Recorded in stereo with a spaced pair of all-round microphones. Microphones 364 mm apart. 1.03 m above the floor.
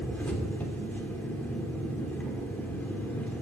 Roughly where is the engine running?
Centre.